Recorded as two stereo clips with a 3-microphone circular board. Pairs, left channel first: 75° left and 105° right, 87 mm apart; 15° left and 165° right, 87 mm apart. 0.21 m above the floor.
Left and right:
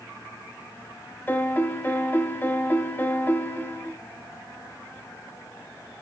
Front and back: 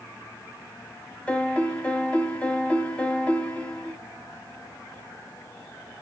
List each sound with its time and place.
1.3 s a piano: 70° left, 0.7 m